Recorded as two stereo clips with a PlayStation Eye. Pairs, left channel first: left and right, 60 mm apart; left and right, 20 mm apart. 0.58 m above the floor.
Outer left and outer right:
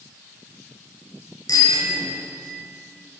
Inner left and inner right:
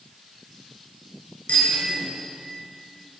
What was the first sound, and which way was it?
A bicycle bell, 75° left (ahead or behind).